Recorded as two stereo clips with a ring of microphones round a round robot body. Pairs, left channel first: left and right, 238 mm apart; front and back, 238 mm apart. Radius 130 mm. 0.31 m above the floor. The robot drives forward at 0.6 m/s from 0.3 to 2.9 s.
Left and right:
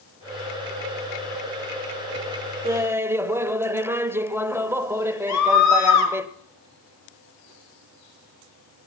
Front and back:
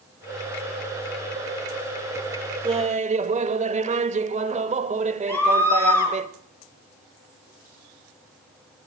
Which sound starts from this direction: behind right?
Laughter, at 2.6 s.